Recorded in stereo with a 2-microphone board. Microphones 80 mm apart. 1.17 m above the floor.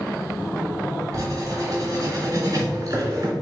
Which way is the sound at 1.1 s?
45° right (ahead or behind).